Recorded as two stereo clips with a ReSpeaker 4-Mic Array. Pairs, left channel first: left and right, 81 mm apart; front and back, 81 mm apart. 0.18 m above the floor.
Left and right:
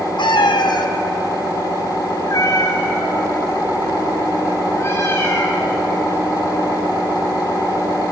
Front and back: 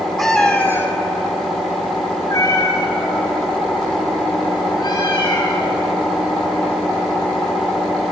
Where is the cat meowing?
85° left, 1.1 m; by 5.9 s 25° left, 5.5 m.